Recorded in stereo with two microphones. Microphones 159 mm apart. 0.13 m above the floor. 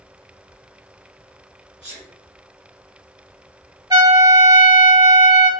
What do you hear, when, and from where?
1.8 s a sneeze: 35° left (ahead or behind), 1.6 m
3.9 s a trumpet: 25° right (ahead or behind), 0.6 m